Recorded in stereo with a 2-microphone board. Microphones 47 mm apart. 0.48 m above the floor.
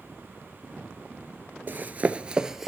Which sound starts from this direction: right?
Running footsteps, at 1.7 s.